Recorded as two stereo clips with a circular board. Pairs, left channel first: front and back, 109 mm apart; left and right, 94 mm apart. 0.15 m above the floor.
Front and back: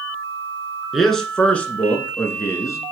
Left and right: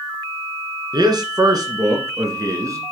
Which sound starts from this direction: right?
A man speaking, at 0.9 s.